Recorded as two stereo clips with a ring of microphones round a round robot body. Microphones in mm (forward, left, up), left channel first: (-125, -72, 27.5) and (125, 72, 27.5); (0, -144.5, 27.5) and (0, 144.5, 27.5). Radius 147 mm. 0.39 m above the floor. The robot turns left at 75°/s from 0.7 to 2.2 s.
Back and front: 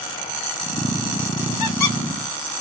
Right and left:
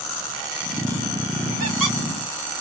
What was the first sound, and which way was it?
A squeak, 145° right.